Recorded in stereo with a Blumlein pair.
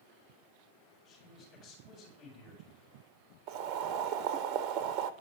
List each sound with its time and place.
1.1 s a man speaking: 40° left, 4.5 m
3.5 s boiling: 40° right, 0.7 m